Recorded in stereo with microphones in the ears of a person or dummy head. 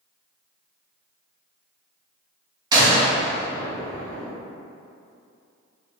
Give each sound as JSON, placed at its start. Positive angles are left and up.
{"t": 2.7, "sound": "a gunshot", "side_deg": -25, "distance_m": 0.9}